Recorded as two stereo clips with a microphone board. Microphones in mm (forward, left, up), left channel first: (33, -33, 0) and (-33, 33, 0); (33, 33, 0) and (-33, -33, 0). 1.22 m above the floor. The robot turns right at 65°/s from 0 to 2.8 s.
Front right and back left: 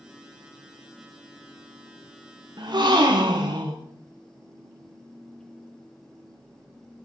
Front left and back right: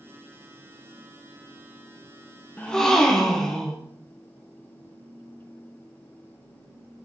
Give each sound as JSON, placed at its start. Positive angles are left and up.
{"t": 2.6, "sound": "a gasp", "azimuth_deg": 115, "distance_m": 0.9}